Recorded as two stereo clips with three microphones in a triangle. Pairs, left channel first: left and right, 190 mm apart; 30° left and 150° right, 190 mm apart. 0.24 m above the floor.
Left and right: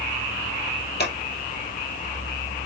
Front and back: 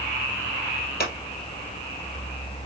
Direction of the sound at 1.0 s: 65° left.